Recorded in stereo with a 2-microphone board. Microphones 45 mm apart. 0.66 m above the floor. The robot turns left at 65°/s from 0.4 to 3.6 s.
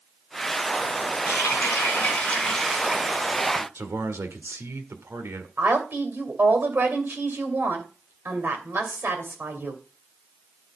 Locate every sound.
1.3 s a running tap: 90° left, 3.5 m; by 3.6 s 65° right, 3.5 m
3.8 s a man speaking: 70° right (ahead or behind), 1.7 m
5.6 s a woman speaking: 55° right (ahead or behind), 2.5 m